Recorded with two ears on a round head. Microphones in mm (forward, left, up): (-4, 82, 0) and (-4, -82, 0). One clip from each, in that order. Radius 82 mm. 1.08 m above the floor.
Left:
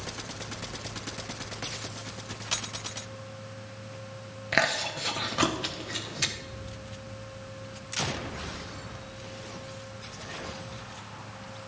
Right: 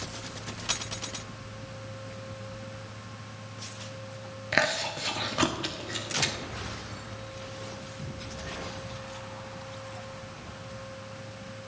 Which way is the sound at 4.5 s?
Centre (ahead or behind).